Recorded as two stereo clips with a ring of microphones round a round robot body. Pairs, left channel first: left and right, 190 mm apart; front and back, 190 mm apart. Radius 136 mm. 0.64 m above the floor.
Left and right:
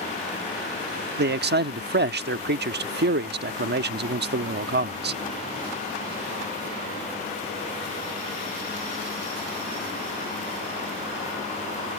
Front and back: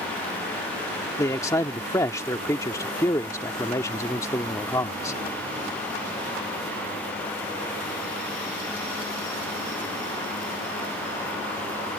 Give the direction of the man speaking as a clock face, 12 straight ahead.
2 o'clock.